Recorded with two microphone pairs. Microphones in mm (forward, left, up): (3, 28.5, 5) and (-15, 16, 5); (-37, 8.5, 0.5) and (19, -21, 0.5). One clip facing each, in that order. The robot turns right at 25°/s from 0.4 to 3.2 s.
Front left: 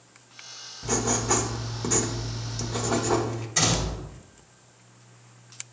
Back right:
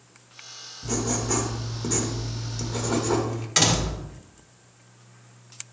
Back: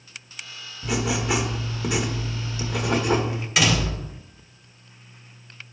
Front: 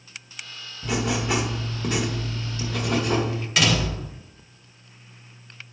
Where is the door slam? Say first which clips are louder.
Back right 3 dB, even; 125° right, 1.6 m.